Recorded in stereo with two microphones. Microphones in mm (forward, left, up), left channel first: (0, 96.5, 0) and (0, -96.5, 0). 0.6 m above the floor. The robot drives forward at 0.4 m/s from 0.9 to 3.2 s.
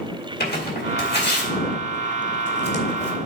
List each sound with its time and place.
0.4 s tearing paper: 60° left (ahead or behind), 2.5 m; by 3.1 s 65° left (ahead or behind), 2 m